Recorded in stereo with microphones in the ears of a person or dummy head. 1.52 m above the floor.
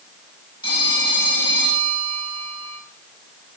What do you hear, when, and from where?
0.6 s a phone ringing: 20° left (ahead or behind), 5.5 m